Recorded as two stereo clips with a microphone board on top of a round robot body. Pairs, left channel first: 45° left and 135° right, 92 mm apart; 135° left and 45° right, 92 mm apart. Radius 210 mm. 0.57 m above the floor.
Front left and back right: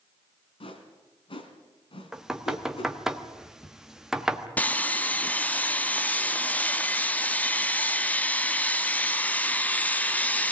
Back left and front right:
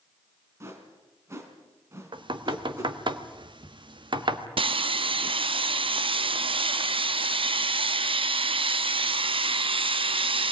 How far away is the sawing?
About 1.0 m.